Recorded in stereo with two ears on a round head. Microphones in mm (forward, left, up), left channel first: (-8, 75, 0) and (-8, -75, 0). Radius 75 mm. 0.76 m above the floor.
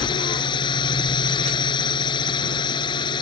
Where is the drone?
30° left (ahead or behind).